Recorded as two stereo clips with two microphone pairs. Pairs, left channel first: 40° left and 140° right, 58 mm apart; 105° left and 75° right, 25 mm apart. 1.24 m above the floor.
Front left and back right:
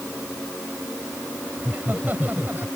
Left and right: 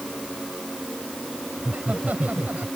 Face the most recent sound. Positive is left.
turn(degrees=-85)